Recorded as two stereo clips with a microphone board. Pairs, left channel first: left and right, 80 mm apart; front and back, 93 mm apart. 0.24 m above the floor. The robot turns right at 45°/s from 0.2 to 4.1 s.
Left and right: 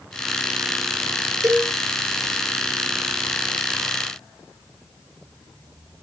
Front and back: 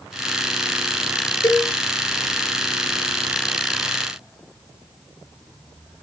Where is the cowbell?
50° right, 1.9 m; by 1.7 s 35° right, 1.9 m.